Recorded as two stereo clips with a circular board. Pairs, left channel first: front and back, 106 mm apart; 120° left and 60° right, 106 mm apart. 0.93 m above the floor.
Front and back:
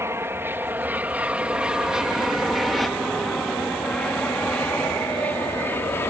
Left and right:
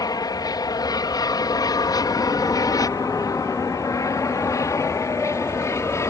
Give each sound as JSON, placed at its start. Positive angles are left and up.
{"t": 0.0, "sound": "an aircraft", "azimuth_deg": 130}